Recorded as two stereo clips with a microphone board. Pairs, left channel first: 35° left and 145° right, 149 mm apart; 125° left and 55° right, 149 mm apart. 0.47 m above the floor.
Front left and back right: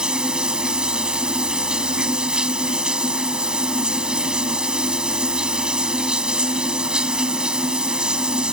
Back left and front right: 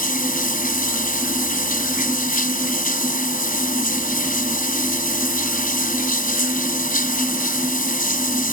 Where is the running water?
130° left.